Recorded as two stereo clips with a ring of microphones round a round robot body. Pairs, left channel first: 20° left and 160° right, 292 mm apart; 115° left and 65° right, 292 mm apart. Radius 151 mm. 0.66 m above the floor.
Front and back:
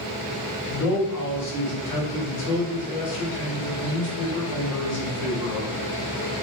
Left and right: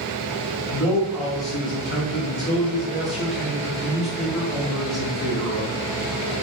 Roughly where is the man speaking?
Ahead left.